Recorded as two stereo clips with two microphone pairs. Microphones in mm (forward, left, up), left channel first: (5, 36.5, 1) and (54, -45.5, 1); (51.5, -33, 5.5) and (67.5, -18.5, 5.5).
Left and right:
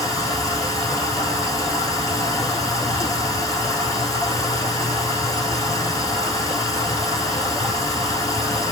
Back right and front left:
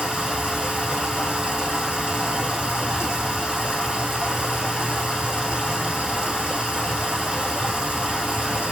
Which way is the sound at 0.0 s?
65° left.